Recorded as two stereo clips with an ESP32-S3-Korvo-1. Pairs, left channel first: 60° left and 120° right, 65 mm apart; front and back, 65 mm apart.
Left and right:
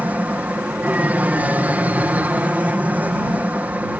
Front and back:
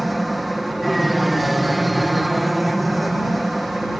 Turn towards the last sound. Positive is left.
turn(degrees=-95)